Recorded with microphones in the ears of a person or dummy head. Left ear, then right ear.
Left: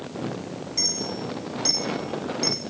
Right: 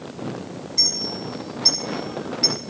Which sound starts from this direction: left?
A clink, at 0.8 s.